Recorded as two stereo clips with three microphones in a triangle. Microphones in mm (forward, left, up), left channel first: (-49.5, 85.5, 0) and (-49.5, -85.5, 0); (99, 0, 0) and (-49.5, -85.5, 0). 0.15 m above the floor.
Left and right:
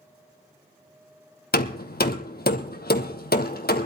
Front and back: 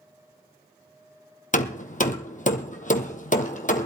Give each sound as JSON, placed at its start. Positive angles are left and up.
{"t": 1.5, "sound": "hammering", "azimuth_deg": 70, "distance_m": 1.3}